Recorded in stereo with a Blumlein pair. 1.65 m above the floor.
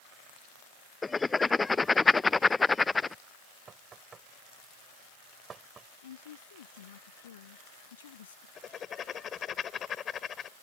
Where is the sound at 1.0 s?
10° left.